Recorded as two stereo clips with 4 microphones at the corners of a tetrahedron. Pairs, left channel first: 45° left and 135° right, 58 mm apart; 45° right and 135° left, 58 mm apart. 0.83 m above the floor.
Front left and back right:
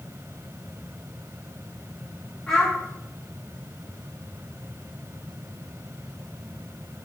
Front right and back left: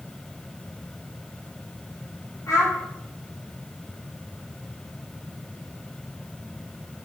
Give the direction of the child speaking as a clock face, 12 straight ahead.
1 o'clock.